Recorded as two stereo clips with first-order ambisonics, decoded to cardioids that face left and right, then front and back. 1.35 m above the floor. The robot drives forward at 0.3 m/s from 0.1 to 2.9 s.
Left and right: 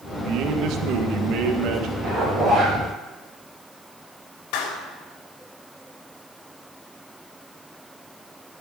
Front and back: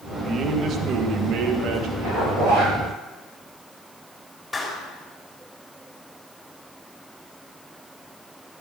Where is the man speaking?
125° right, 1.6 m; by 1.9 s 135° right, 1.9 m.